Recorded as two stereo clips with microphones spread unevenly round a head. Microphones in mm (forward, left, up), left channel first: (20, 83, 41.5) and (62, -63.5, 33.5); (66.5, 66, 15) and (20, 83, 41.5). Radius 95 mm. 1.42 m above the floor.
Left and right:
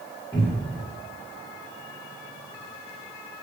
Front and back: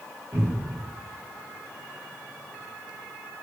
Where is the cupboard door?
Straight behind, 1.1 m.